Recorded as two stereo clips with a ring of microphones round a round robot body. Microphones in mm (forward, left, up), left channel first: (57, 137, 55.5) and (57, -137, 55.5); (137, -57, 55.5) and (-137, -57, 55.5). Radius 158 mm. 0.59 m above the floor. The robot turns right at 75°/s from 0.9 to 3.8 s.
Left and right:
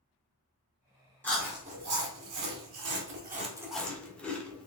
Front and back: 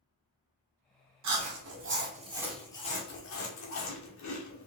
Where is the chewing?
170° left, 1.5 m; by 4.7 s 5° left, 1.5 m.